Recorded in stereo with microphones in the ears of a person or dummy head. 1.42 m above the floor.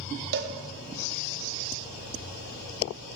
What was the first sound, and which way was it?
A cowbell, 55° right (ahead or behind).